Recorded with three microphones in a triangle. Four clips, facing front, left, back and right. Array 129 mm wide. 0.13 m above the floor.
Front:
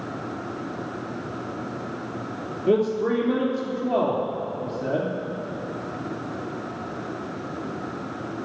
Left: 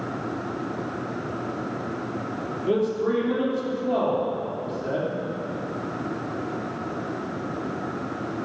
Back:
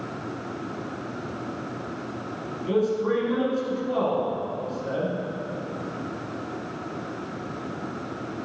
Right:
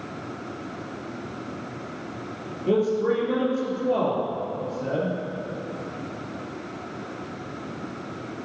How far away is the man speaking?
About 3 m.